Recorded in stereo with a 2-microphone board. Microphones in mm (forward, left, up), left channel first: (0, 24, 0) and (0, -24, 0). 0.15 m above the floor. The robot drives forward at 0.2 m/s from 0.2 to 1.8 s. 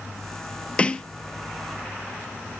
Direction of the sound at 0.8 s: 20° left (ahead or behind).